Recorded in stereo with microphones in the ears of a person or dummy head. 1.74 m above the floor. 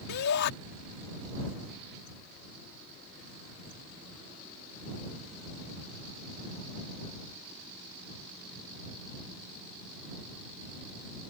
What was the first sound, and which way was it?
A shout, 60° left (ahead or behind).